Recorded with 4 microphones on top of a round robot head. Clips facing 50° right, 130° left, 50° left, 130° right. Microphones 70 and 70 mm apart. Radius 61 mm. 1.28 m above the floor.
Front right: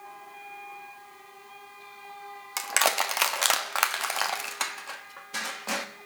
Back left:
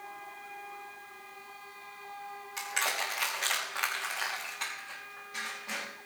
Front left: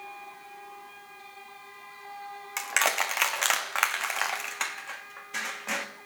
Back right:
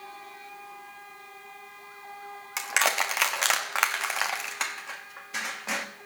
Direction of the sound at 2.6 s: 45° right.